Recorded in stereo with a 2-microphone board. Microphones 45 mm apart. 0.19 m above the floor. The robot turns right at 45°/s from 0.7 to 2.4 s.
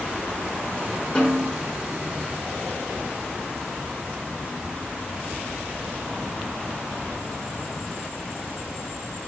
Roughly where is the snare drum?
Centre.